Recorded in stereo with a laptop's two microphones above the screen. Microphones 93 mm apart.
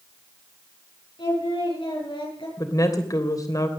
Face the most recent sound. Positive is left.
turn(degrees=40)  # may be behind; listen again after turning